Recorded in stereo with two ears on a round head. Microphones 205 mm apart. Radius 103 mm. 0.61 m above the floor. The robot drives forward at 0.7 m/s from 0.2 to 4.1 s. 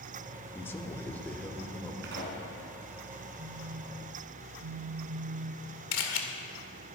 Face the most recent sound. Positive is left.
turn(degrees=65)  # may be behind; listen again after turning